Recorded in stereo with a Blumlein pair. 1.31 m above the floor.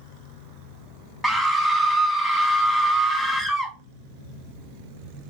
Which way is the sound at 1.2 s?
5° left.